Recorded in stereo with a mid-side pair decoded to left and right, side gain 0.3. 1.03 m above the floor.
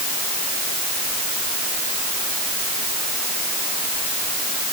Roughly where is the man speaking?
I don't hear a man speaking.